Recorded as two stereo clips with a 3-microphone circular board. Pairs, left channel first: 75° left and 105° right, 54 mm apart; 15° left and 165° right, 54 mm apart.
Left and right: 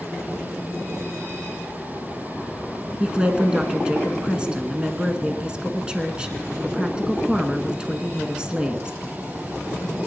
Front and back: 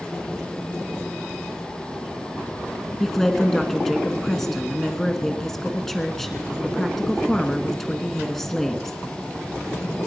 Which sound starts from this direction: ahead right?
A woman speaking, at 3.0 s.